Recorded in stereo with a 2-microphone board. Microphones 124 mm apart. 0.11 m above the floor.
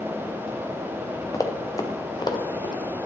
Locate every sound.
1.3 s running footsteps: 25° left (ahead or behind), 1.3 m; by 2.7 s 30° left (ahead or behind), 2.5 m